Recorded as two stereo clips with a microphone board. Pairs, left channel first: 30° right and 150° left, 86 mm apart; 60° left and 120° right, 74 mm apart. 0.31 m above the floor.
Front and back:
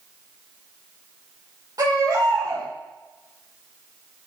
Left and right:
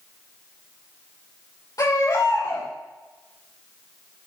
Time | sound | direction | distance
1.8 | a baby crying | 100° left | 7 m